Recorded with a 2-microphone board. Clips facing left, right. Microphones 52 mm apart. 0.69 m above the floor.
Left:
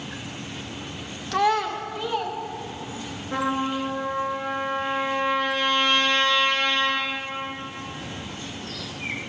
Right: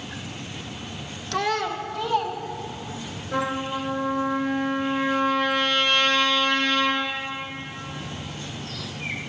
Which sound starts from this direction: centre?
A child speaking, at 1.3 s.